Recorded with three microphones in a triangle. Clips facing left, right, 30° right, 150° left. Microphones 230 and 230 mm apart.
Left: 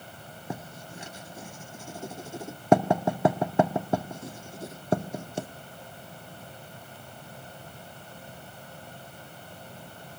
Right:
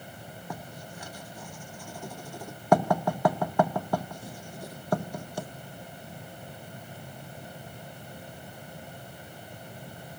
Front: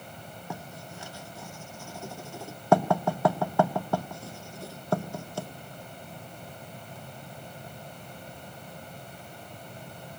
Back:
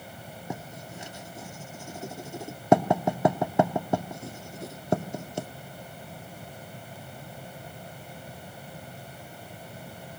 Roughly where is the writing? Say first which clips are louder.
Left 4 dB, back 3 dB; left.